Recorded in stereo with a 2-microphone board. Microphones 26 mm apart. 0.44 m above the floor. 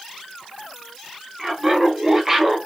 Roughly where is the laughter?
Centre.